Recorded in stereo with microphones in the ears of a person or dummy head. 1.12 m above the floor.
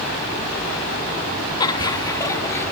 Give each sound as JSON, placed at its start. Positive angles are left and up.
{"t": 1.6, "sound": "laughter", "side_deg": 20}